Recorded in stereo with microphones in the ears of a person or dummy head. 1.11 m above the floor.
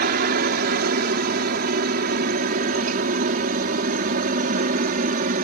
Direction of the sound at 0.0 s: 50° right (ahead or behind).